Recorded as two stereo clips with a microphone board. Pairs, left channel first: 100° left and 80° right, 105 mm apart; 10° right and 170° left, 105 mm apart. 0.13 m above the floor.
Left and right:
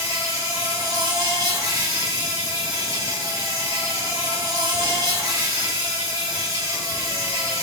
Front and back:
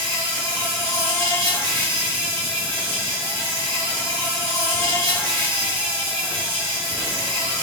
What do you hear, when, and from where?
0.0 s an insect: 65° right, 2 m